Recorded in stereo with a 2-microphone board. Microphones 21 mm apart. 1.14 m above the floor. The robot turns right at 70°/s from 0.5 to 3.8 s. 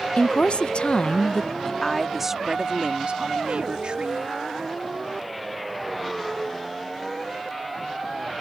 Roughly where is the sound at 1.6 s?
Behind left.